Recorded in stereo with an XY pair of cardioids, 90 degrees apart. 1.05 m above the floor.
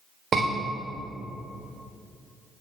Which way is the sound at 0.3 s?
55° right.